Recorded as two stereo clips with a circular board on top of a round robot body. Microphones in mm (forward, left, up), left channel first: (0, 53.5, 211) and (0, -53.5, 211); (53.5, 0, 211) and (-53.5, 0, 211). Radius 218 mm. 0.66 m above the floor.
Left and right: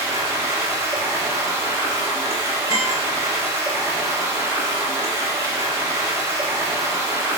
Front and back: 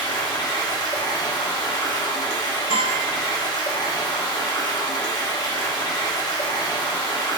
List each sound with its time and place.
0.0 s running water: 30° right, 0.9 m
2.7 s a guitar: 150° right, 1.2 m